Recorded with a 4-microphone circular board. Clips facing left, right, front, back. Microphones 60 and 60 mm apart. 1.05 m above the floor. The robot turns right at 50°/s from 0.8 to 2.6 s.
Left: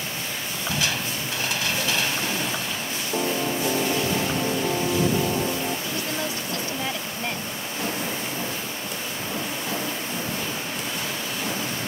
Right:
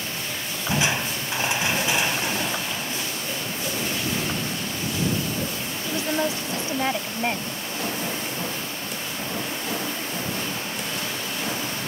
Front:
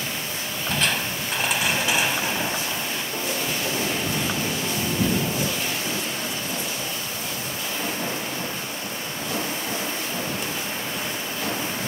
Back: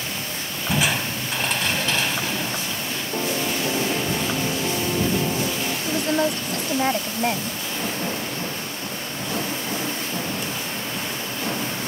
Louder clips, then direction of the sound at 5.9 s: Right 4 dB, back 7 dB; 155° right.